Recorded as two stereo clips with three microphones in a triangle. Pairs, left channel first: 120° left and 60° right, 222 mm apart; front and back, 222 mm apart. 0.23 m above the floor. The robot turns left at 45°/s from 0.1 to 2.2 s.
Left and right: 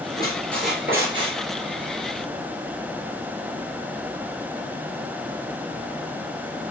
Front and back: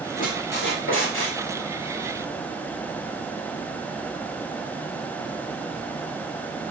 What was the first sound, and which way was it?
A squeak, 50° left.